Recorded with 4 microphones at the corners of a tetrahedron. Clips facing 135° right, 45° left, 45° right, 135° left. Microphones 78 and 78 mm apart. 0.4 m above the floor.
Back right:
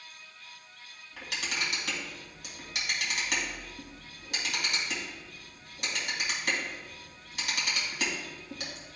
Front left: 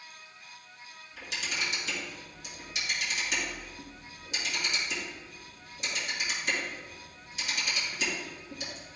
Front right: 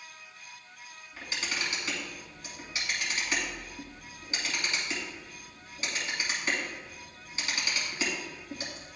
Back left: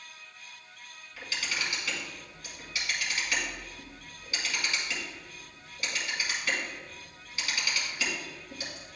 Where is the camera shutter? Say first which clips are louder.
Back right 1 dB, even; 110° right, 2.5 m.